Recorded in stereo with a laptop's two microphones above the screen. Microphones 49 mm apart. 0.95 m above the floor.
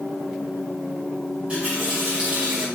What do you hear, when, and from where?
1.3 s a running tap: 25° right (ahead or behind), 3 m